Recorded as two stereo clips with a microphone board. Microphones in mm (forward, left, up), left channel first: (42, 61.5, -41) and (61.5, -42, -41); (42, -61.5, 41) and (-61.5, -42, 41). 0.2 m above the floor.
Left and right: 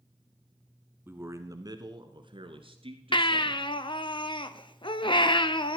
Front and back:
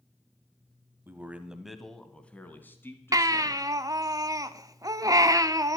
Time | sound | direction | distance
1.1 | a man speaking | 135° right | 1.2 m
3.1 | a baby crying | 120° left | 0.6 m